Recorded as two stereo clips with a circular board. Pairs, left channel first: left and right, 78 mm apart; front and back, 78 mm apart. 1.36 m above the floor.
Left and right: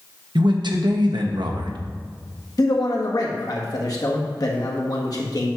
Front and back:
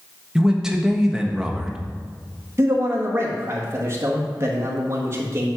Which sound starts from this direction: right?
A man speaking, at 0.3 s.